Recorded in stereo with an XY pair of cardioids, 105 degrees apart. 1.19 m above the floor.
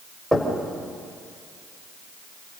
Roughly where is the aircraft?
No aircraft in this recording.